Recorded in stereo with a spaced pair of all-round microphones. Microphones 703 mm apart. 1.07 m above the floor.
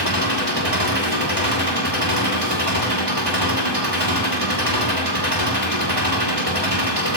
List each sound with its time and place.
0.0 s an engine running: 40° right (ahead or behind), 8 m